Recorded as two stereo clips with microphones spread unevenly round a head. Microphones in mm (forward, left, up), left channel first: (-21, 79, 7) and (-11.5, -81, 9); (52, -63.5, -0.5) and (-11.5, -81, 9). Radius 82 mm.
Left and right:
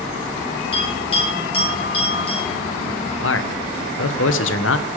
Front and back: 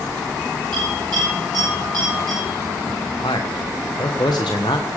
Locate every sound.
0.7 s a bell: 150° left, 8.5 m
3.2 s a man speaking: 75° left, 1.3 m